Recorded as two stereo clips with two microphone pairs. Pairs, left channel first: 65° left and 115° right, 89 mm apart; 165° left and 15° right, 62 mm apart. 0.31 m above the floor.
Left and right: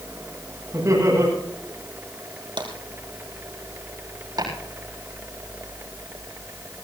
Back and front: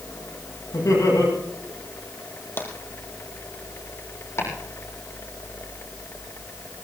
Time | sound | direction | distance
0.7 | laughter | 170° right | 9 m
2.6 | tapping | 140° right | 3 m
4.4 | chopping | 155° right | 7.5 m